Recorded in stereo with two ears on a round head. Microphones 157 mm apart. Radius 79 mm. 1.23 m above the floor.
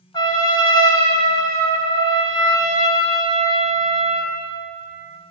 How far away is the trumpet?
About 1.8 m.